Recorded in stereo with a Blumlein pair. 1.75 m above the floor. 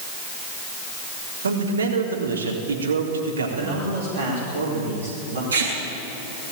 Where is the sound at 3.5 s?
65° right, 5.5 m.